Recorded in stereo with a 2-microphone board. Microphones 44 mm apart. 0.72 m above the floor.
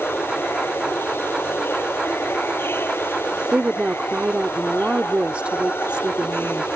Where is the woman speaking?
30° right (ahead or behind).